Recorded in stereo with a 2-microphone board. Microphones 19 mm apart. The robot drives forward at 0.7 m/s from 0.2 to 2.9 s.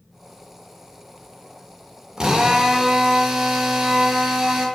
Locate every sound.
2.2 s a drill: 35° right (ahead or behind), 1.3 m; by 4.7 s 25° right (ahead or behind), 1.7 m